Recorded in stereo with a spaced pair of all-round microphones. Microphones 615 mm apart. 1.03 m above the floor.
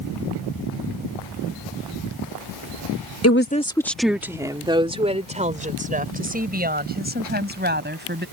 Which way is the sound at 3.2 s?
25° left (ahead or behind).